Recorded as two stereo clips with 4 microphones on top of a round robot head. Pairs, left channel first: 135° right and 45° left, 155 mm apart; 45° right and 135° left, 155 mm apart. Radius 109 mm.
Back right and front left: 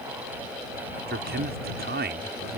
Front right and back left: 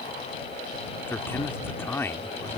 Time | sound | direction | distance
1.1 | a man speaking | 35° left | ?